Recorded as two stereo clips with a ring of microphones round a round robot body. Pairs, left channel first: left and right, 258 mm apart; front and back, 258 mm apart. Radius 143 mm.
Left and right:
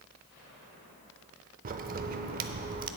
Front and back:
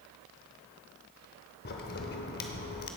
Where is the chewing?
I don't hear chewing.